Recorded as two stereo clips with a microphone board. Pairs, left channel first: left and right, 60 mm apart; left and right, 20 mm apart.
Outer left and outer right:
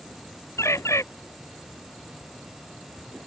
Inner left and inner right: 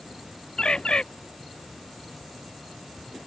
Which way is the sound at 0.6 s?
50° left (ahead or behind).